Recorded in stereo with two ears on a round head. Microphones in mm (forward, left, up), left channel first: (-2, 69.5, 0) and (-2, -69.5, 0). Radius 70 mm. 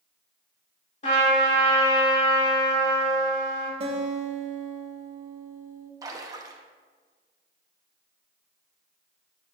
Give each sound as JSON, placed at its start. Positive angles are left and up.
{"t": 1.0, "sound": "a trumpet", "side_deg": 45, "distance_m": 3.0}
{"t": 3.8, "sound": "a guitar", "side_deg": -40, "distance_m": 1.4}
{"t": 6.0, "sound": "a splash", "side_deg": -20, "distance_m": 0.9}